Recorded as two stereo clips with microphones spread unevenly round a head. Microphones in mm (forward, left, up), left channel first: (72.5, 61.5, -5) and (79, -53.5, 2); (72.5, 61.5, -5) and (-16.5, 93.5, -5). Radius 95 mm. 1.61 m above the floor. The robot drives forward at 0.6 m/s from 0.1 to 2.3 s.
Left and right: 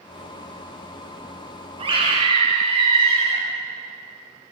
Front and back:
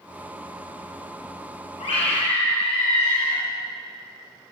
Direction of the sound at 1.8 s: 50° right.